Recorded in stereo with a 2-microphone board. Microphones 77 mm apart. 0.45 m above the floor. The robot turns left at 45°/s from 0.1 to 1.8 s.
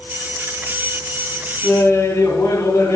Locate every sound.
1.6 s laughter: 25° left (ahead or behind), 5.5 m; by 3.0 s 30° left (ahead or behind), 5.5 m